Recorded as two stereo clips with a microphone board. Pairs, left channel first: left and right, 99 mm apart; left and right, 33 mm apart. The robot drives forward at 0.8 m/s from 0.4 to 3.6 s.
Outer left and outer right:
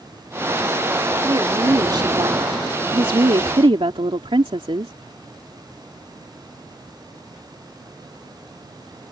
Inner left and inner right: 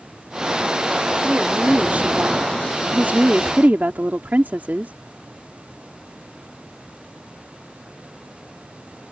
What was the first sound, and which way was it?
A woman speaking, 45° right (ahead or behind).